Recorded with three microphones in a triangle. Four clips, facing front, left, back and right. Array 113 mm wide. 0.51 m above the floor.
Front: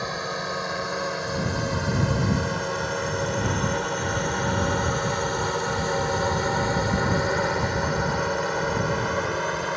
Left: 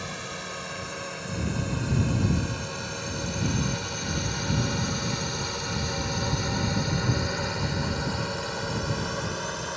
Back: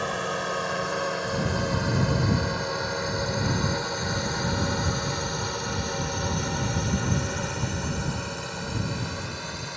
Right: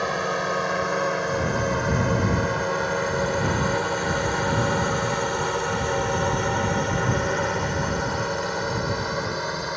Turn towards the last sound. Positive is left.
turn(degrees=-20)